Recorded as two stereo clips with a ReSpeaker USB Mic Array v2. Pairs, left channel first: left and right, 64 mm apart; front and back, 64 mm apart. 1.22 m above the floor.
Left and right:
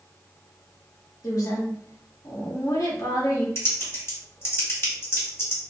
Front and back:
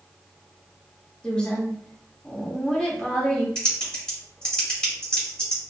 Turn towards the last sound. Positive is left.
turn(degrees=65)